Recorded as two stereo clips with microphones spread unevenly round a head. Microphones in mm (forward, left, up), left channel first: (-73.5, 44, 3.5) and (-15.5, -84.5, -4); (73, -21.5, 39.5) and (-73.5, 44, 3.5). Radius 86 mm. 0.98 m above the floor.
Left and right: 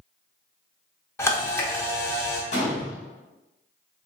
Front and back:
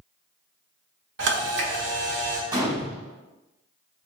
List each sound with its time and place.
1.2 s a camera shutter: 175° right, 1.0 m
2.5 s a gunshot: 85° left, 1.1 m